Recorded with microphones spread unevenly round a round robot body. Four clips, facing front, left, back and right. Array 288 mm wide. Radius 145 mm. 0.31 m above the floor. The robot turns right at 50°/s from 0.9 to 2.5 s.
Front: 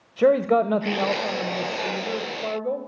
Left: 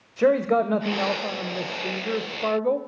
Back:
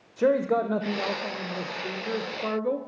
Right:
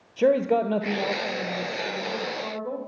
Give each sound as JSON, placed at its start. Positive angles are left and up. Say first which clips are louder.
{"t": 0.2, "sound": "a man speaking", "louder": "left 1 dB, front 4 dB", "azimuth_deg": 5, "distance_m": 1.0}